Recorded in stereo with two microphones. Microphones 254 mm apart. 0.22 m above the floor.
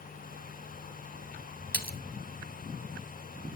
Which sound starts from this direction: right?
A splash, at 1.7 s.